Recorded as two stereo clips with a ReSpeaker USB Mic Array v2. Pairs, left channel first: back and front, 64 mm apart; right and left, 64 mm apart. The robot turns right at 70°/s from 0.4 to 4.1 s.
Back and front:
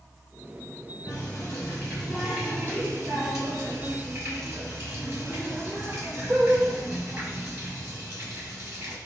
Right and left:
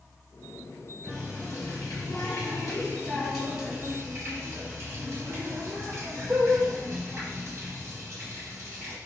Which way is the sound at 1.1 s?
165° right.